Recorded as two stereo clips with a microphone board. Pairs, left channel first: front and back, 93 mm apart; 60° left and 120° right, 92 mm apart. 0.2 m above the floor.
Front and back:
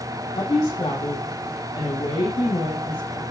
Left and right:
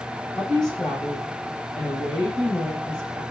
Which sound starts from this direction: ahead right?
A woman speaking, at 0.3 s.